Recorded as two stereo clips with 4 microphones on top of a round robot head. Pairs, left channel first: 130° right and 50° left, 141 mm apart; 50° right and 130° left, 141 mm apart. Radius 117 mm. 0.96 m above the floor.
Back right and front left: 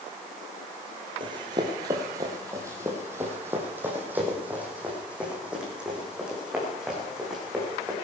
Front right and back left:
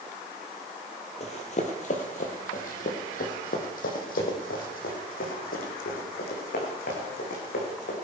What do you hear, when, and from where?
1.2 s running footsteps: 5° right, 1.6 m; by 8.0 s 35° right, 4.5 m